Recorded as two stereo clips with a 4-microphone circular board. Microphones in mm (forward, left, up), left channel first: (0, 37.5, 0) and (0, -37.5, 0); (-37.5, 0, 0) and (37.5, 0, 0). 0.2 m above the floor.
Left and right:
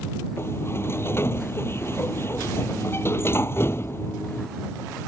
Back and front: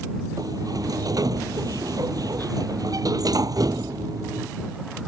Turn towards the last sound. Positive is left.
turn(degrees=35)